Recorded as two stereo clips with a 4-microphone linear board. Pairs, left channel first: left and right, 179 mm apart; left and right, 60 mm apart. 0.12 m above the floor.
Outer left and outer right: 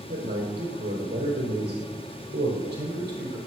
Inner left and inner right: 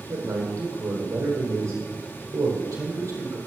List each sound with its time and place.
0.1 s a man speaking: 65° right (ahead or behind), 4 m